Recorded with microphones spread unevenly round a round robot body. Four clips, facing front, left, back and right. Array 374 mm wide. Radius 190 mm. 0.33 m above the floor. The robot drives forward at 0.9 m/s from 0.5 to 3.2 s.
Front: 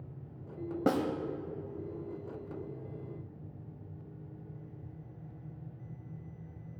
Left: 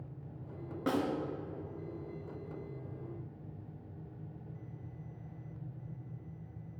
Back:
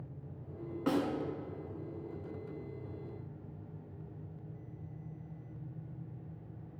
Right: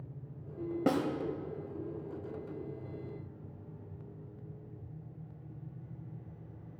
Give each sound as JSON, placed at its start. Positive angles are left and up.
{"t": 0.9, "sound": "a snare drum", "azimuth_deg": -40, "distance_m": 0.8}